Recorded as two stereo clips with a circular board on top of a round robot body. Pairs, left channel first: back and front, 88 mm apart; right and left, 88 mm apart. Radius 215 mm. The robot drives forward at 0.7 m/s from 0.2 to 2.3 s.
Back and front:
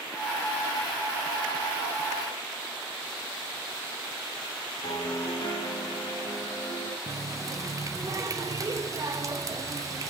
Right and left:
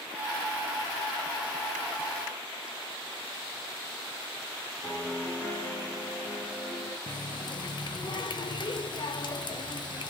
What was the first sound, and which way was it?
A piano, 155° right.